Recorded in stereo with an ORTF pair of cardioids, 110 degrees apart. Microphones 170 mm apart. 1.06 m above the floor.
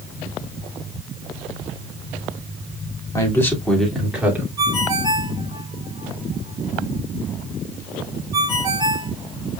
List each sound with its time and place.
3.1 s a man speaking: 20° left, 2.5 m; by 4.5 s 15° right, 2.5 m
4.6 s a ringtone: 25° right, 2.5 m